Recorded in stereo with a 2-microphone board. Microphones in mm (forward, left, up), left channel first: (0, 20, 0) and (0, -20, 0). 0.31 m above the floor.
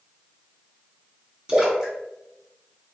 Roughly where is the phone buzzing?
I don't hear a phone buzzing.